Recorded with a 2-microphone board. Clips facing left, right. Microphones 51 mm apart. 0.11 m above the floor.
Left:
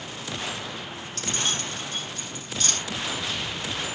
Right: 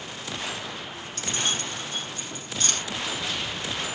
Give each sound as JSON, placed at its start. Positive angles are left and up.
{"t": 1.2, "sound": "keys jangling", "side_deg": -10, "distance_m": 3.0}